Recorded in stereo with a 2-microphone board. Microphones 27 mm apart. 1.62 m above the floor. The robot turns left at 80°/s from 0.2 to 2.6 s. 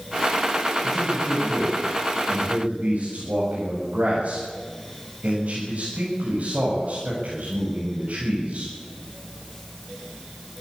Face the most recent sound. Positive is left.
turn(degrees=-120)